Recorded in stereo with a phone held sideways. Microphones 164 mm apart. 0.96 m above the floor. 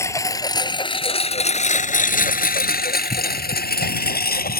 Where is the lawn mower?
15° left (ahead or behind); by 4.6 s 70° left (ahead or behind).